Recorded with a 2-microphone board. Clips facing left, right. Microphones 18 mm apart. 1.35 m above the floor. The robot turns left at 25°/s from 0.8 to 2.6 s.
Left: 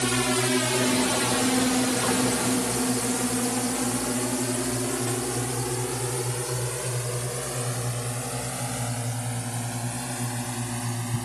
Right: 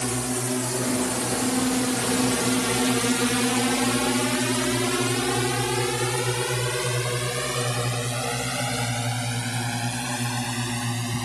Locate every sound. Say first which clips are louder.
0.0 s a drone: left 3 dB; 60° left (ahead or behind); by 11.3 s 60° right (ahead or behind)